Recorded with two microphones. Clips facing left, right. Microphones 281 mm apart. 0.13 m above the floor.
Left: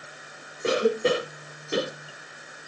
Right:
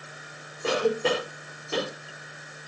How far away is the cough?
About 6.5 m.